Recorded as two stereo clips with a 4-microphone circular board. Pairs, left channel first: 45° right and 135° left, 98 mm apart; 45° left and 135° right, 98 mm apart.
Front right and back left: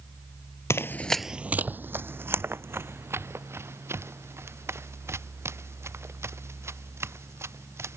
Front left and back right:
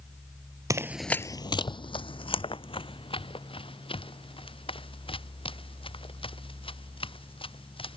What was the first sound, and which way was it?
Running footsteps, 100° right.